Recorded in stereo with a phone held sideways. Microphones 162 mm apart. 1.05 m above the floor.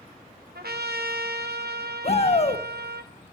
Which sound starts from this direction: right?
A trumpet, at 0.6 s.